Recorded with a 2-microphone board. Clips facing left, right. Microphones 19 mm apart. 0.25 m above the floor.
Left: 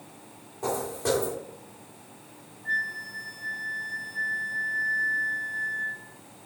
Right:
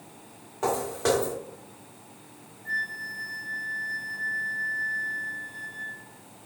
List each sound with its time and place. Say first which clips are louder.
0.6 s footsteps: right 3 dB; 45° right (ahead or behind), 1.4 m
2.6 s a flute: left 1 dB; 20° left (ahead or behind), 1.0 m